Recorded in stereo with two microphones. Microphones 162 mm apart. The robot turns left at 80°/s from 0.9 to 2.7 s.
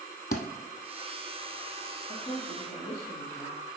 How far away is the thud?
About 1.1 m.